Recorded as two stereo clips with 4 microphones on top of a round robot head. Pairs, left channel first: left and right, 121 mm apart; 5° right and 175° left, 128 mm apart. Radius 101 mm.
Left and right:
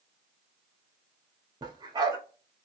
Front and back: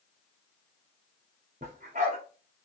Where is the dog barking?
140° right, 0.8 m.